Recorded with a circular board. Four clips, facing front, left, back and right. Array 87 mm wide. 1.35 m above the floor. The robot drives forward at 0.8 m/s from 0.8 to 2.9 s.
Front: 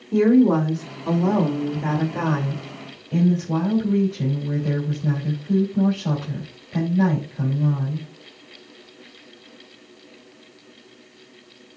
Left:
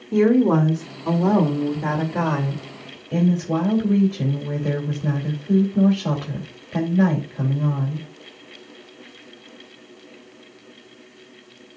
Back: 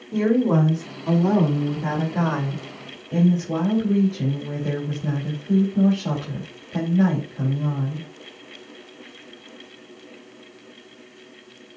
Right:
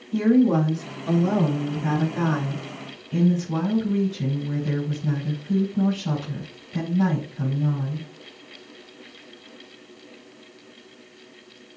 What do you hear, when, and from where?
0.1 s a woman speaking: 75° left, 4 m; by 8.1 s 100° left, 3.5 m